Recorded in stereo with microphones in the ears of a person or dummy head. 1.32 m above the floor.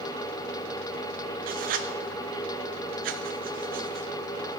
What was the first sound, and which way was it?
Writing, 50° right (ahead or behind).